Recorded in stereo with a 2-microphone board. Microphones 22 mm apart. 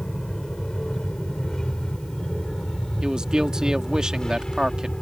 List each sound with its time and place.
0.0 s an aircraft: 30° left (ahead or behind)
3.0 s a man speaking: 35° right (ahead or behind)